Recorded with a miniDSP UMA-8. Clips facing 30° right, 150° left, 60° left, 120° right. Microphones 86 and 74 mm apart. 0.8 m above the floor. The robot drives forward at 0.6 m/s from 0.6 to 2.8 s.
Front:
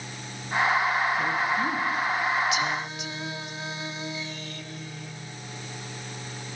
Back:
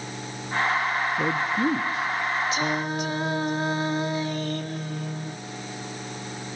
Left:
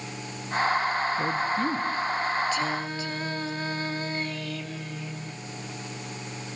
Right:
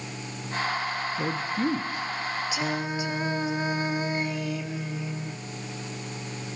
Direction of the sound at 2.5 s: 165° left.